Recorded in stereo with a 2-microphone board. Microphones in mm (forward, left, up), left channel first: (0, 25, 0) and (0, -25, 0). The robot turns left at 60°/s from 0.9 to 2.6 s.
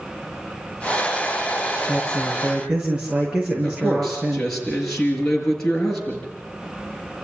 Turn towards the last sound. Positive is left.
turn(degrees=10)  # may be behind; listen again after turning